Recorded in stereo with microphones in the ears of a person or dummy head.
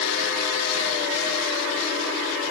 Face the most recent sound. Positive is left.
No sound to turn to.